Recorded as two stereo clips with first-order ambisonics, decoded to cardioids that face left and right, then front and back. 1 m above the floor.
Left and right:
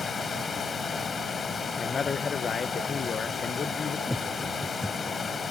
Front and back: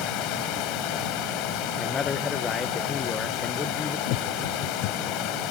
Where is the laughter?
5° left.